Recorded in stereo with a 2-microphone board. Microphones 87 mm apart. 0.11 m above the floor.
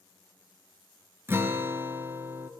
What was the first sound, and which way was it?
A guitar, 25° right (ahead or behind).